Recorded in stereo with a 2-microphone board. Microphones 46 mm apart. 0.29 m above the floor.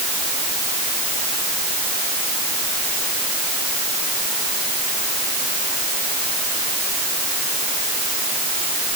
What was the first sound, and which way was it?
Only background noise.